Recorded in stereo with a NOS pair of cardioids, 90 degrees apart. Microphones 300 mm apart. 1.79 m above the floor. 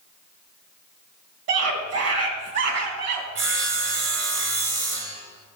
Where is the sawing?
55° right, 4 m.